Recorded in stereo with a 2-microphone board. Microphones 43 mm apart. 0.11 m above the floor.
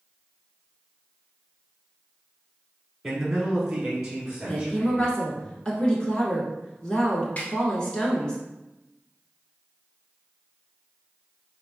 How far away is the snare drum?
About 1.4 m.